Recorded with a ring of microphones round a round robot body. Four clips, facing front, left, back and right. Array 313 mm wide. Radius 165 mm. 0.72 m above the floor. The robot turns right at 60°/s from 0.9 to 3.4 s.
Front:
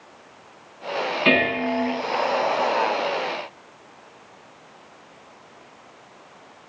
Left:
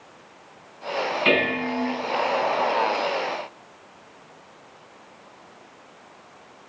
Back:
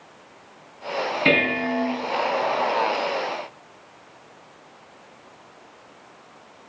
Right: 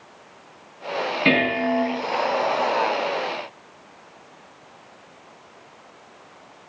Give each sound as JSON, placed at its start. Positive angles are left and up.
{"t": 1.2, "sound": "dishes clattering", "azimuth_deg": -135, "distance_m": 4.5}